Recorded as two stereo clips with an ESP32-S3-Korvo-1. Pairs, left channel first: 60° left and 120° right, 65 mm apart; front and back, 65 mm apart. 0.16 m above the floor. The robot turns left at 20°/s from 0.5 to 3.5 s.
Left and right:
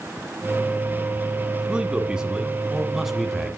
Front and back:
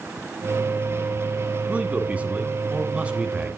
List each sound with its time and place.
1.7 s a man speaking: 170° right, 1.7 m; by 3.6 s 155° left, 1.7 m